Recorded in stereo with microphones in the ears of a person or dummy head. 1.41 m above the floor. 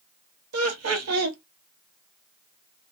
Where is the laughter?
80° right, 0.8 m.